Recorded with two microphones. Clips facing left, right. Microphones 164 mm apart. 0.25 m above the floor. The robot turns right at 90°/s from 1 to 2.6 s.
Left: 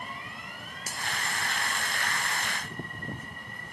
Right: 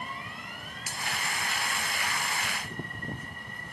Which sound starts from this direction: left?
A finger snap, at 0.9 s.